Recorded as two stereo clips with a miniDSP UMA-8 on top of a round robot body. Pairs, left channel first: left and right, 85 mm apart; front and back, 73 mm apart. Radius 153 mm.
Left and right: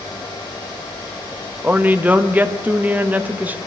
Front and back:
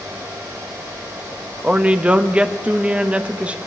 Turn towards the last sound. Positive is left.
turn(degrees=-130)